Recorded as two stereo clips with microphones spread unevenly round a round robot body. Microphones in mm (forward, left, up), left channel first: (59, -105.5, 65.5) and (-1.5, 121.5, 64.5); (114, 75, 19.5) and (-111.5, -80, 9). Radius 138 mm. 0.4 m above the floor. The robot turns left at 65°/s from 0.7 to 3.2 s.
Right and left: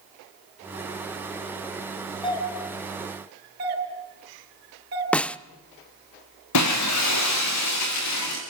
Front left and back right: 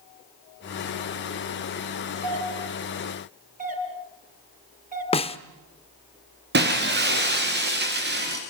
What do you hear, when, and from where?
2.2 s a doorbell: 145° right, 5.5 m; by 5.0 s 150° left, 5.5 m
5.1 s a snare drum: straight ahead, 0.8 m
6.5 s breaking glass: 90° right, 4.5 m